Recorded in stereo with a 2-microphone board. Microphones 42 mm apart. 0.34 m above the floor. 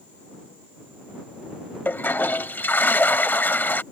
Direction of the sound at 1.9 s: 55° left (ahead or behind).